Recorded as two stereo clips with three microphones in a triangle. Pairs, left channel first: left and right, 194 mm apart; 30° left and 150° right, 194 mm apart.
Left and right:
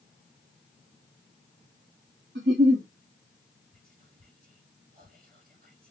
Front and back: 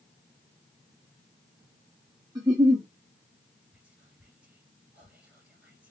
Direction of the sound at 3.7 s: 70° right.